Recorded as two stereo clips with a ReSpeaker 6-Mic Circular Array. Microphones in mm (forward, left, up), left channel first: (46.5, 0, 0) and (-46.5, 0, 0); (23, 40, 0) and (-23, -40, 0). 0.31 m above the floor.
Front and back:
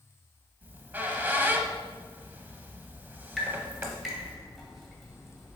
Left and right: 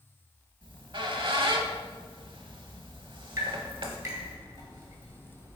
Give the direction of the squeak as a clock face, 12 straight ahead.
4 o'clock.